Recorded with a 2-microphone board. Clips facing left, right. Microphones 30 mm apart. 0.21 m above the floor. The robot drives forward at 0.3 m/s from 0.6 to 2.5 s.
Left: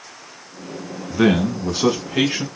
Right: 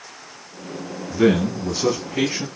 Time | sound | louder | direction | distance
1.1 | a man speaking | left 1 dB | 45° left (ahead or behind) | 2.5 m